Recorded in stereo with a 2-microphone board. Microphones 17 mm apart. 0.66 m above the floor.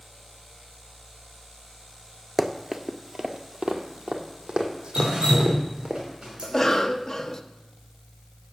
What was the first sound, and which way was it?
Running footsteps, 10° right (ahead or behind).